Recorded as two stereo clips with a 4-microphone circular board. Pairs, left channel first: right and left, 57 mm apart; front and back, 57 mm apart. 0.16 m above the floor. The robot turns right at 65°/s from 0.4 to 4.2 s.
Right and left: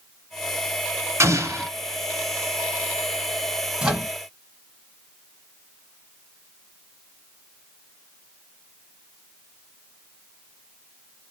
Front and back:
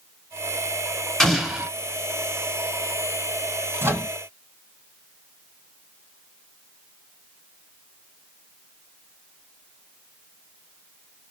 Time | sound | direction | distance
1.2 | an explosion | 80° left | 1.1 m
3.8 | a microwave | 155° left | 1.7 m